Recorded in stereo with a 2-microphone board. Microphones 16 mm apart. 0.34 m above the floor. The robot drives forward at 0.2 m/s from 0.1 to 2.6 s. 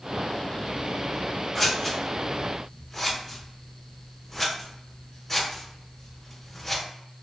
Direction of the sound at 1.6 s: 10° left (ahead or behind).